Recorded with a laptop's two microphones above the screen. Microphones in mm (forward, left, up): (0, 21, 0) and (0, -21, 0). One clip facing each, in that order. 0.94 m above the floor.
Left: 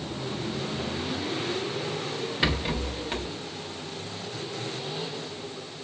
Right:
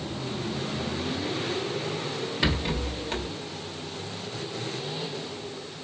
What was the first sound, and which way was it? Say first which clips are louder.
A rattle: even; 10° left (ahead or behind).